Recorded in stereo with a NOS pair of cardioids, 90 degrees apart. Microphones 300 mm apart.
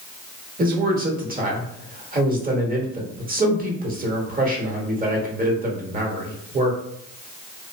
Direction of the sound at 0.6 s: 30° right.